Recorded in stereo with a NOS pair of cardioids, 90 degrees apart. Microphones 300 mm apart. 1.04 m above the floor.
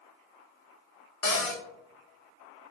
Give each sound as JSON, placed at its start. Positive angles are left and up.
{"t": 1.2, "sound": "a cupboard door", "azimuth_deg": 55, "distance_m": 0.8}